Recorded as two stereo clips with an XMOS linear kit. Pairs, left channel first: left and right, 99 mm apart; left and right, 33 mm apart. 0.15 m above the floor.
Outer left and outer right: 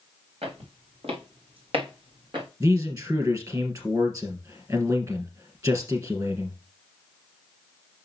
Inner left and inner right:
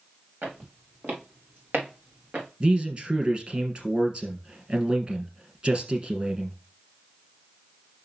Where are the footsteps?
85° right, 3.5 m; by 2.5 s 60° right (ahead or behind), 3 m.